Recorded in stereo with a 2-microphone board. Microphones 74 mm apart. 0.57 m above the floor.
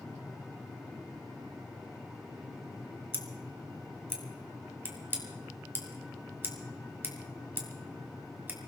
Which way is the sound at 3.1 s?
30° right (ahead or behind).